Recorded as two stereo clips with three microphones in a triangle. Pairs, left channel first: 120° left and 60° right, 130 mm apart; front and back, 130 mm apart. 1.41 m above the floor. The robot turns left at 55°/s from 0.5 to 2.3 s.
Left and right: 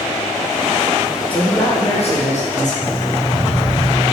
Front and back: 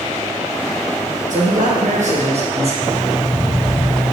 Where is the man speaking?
160° right, 1.3 m; by 2.7 s 145° left, 1.3 m.